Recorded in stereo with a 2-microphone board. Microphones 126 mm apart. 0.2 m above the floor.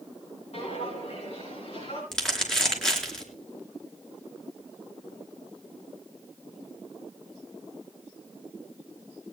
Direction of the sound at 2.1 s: 5° left (ahead or behind).